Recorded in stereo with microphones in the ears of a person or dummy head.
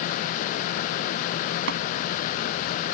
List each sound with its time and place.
1.7 s tapping: 65° right (ahead or behind)